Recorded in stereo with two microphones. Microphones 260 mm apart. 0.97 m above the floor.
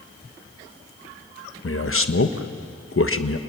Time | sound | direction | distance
1.6 | a man speaking | 50° left (ahead or behind) | 1.2 m